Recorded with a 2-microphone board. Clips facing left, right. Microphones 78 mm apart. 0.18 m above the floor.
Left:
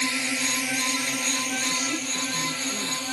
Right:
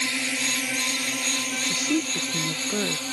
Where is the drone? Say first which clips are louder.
Left 1 dB; 5° left (ahead or behind); by 3.1 s centre (ahead or behind).